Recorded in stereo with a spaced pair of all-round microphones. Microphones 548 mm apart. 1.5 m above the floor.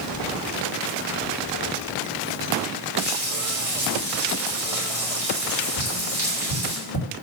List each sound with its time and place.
3.0 s frying: 35° left (ahead or behind), 5.5 m
5.8 s tapping: 35° right (ahead or behind), 5 m